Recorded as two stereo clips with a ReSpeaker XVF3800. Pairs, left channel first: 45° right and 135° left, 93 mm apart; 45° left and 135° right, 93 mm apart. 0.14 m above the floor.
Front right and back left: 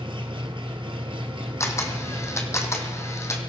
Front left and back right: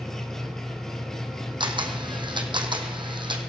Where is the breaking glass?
I don't hear breaking glass.